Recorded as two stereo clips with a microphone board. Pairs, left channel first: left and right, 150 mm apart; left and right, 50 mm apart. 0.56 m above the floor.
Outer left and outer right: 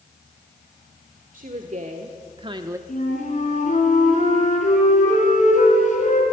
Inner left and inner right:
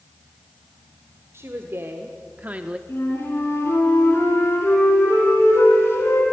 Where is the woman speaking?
60° right (ahead or behind), 1.6 m; by 2.8 s 20° right (ahead or behind), 0.7 m.